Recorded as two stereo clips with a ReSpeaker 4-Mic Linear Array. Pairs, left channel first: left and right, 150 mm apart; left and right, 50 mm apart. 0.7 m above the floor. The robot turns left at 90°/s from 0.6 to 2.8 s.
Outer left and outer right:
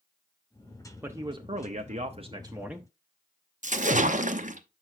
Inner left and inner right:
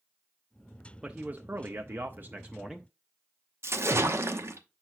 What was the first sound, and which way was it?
A man speaking, 15° right.